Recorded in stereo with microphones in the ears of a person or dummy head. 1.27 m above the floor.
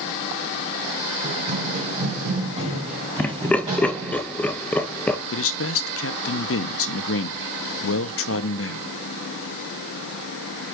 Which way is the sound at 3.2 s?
5° left (ahead or behind).